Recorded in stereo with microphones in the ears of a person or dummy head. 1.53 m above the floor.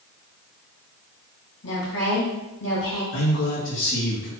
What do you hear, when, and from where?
1.6 s a woman speaking: 70° left (ahead or behind), 1.8 m
3.1 s a man speaking: 60° left (ahead or behind), 1.3 m